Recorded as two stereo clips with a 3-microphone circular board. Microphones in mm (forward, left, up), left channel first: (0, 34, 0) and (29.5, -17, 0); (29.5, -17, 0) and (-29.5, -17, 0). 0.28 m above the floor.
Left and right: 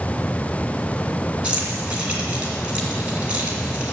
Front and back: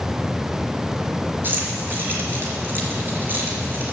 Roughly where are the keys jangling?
Behind right.